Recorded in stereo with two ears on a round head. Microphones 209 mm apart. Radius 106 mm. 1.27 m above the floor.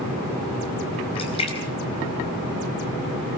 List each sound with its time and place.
1.1 s a splash: 25° left (ahead or behind), 4 m